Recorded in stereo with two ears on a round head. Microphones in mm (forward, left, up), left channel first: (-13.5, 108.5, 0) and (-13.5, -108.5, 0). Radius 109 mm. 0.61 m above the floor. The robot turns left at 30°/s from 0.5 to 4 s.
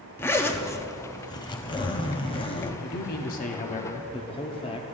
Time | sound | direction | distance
0.2 | a zipper | 10° left (ahead or behind) | 0.6 m
2.8 | a man speaking | 65° left | 0.8 m